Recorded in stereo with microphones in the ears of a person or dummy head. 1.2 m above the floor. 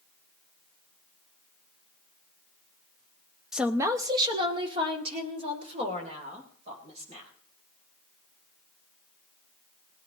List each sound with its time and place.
3.5 s a woman speaking: 5° right (ahead or behind), 0.8 m; by 7.3 s 40° right (ahead or behind), 5.5 m